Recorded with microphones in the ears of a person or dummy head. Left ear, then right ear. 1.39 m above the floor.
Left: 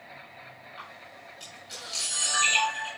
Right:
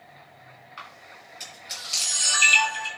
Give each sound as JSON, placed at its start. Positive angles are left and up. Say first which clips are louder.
{"t": 0.8, "sound": "a camera shutter", "louder": "right 4 dB", "side_deg": -35, "distance_m": 7.5}